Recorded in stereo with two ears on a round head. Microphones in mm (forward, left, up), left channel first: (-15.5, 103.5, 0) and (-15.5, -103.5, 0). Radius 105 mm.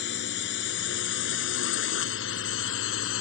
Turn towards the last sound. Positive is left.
turn(degrees=60)  # may be behind; listen again after turning